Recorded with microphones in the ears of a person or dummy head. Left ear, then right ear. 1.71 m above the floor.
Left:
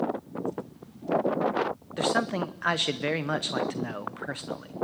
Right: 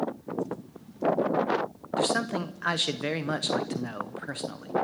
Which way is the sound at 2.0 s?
15° left (ahead or behind).